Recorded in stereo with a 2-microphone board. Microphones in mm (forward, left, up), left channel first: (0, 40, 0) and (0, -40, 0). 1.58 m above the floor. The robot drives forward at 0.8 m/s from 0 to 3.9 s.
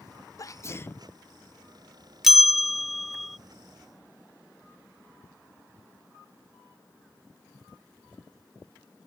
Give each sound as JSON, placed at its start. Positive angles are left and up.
{"t": 0.4, "sound": "a sneeze", "side_deg": 45}
{"t": 2.2, "sound": "a bell", "side_deg": -5}